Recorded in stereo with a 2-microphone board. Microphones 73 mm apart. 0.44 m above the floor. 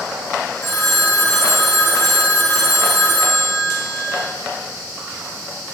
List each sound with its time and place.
0.6 s a phone ringing: 35° left (ahead or behind), 1.7 m